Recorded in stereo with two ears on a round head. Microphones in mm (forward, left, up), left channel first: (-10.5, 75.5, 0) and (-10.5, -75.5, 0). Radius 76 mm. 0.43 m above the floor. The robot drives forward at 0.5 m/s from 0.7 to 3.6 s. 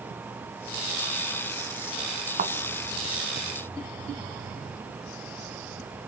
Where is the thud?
50° right (ahead or behind), 1.7 m; by 2.5 s 45° right (ahead or behind), 1.8 m.